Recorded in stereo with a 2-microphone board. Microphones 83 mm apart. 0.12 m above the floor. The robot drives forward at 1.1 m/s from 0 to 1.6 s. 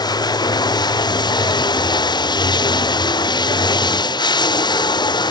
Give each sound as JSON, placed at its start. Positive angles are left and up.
{"t": 0.0, "sound": "running water", "side_deg": 65}